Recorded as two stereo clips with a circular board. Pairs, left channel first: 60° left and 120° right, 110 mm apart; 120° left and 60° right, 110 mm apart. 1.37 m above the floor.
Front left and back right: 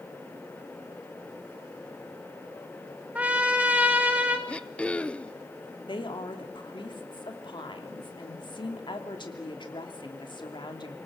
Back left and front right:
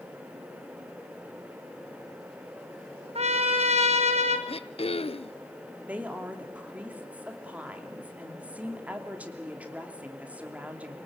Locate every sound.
3.1 s a trumpet: 40° right, 2 m
4.5 s throat clearing: 140° left, 0.6 m
5.8 s a woman speaking: 15° left, 3 m